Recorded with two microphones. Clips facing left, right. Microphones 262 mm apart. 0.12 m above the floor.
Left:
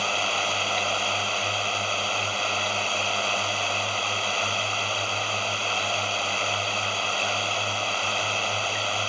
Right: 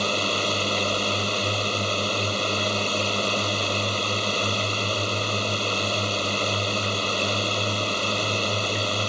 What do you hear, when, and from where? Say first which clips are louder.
0.0 s a drone: right 5 dB; 40° right (ahead or behind)